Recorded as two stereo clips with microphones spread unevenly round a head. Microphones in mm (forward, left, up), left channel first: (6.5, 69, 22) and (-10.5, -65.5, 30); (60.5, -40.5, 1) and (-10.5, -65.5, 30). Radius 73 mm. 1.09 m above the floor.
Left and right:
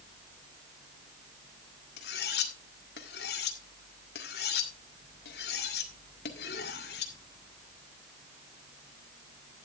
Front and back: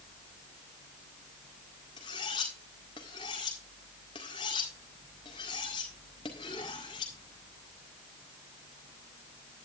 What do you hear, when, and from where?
2.0 s cutlery clinking: 70° left, 1.8 m